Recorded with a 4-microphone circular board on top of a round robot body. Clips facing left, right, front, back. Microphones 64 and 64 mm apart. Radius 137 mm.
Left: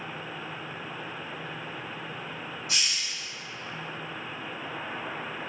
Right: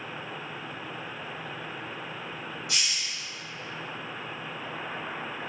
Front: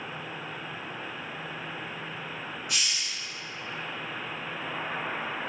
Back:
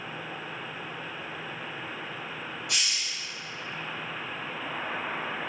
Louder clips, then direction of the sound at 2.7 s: Left 1 dB, even; 150° left.